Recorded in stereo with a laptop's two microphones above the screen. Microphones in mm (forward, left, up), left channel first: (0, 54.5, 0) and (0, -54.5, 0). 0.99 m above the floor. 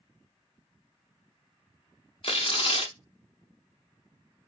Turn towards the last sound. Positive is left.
turn(degrees=55)  # may be behind; listen again after turning